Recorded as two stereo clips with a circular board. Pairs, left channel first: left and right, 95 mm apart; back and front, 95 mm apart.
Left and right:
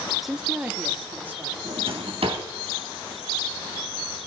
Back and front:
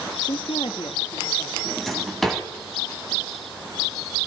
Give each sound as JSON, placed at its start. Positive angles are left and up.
{"t": 0.2, "sound": "a woman speaking", "azimuth_deg": 180, "distance_m": 0.7}
{"t": 1.6, "sound": "a drawer", "azimuth_deg": -95, "distance_m": 2.5}